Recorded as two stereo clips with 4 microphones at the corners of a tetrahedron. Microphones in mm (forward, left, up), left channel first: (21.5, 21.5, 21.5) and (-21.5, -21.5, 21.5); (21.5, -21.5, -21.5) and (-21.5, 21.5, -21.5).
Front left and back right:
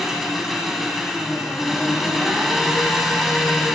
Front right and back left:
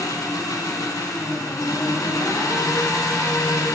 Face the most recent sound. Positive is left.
turn(degrees=-45)